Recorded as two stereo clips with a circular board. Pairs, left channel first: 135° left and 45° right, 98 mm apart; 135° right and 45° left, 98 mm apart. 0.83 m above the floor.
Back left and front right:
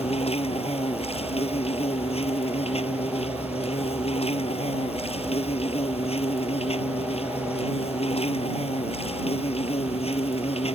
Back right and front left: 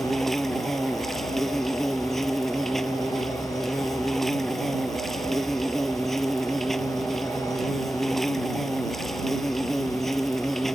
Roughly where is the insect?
Behind left.